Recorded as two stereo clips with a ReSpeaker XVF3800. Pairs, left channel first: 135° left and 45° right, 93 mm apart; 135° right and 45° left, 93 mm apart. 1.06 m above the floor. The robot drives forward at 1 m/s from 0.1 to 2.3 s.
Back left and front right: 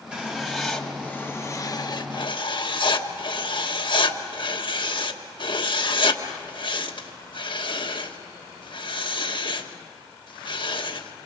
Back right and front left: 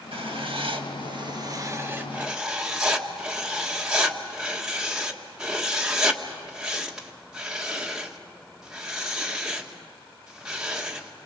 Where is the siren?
No siren in this recording.